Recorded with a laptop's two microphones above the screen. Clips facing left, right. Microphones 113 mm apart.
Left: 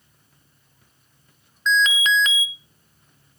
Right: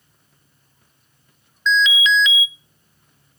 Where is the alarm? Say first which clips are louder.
Right 2 dB; 45° left (ahead or behind), 0.5 m.